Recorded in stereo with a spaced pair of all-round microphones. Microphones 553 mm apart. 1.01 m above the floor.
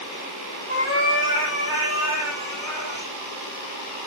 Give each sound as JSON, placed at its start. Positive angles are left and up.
{"t": 0.7, "sound": "a cat meowing", "side_deg": 20, "distance_m": 7.0}